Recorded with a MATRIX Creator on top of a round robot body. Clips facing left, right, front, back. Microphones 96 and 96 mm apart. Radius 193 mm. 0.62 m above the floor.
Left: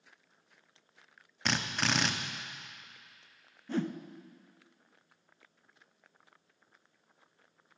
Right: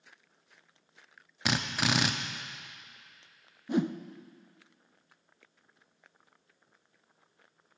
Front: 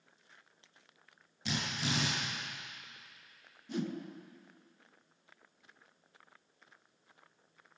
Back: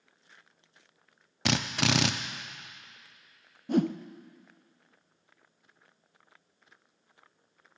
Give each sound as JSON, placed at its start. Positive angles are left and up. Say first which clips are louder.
{"t": 1.4, "sound": "a drill", "louder": "right 2 dB, back 8 dB", "azimuth_deg": -170, "distance_m": 0.6}
{"t": 3.7, "sound": "a whoosh", "louder": "right 4 dB, back 11 dB", "azimuth_deg": -160, "distance_m": 0.6}